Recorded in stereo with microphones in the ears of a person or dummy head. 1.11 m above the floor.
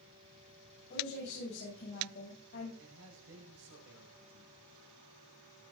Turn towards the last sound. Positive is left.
turn(degrees=-70)  # may be behind; listen again after turning